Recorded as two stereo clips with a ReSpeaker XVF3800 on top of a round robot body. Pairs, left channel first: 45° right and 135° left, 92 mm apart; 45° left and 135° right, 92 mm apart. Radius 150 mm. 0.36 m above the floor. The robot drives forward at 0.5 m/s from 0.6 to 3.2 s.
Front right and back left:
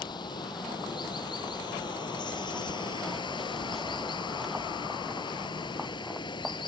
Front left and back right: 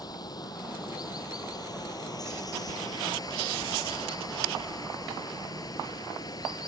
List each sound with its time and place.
0.0 s running water: 5° right